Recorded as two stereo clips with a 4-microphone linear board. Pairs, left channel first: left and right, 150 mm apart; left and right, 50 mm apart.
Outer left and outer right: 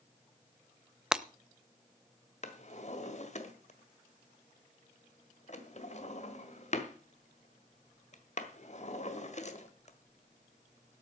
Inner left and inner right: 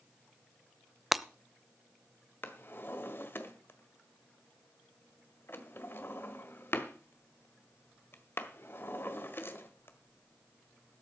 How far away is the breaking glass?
About 0.6 m.